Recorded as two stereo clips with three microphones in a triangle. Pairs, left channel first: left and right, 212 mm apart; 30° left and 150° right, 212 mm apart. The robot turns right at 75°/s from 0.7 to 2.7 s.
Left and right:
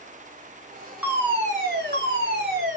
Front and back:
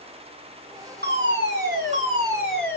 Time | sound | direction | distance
1.0 | a fire alarm | 175° right | 4 m